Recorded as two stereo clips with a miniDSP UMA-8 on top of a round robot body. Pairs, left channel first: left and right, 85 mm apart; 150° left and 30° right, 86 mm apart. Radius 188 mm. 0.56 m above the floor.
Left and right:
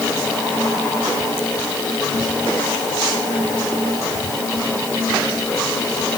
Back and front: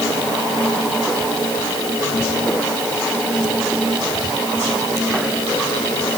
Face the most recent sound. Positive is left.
No sound to turn to.